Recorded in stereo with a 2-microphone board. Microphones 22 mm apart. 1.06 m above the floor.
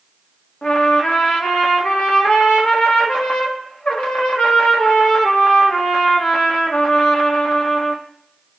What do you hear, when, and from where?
0.6 s a trumpet: 70° left (ahead or behind), 1.4 m